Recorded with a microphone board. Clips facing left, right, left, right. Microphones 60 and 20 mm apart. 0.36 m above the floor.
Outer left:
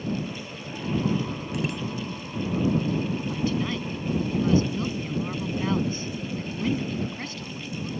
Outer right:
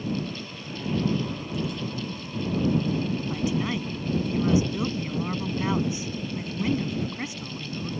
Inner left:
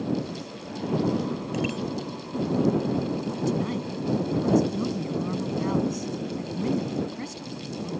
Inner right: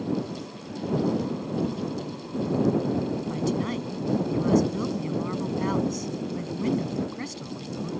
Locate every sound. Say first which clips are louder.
1.5 s a bicycle bell: outer left 2 dB, even; 70° left (ahead or behind)
3.3 s a woman speaking: even, even; 15° right (ahead or behind)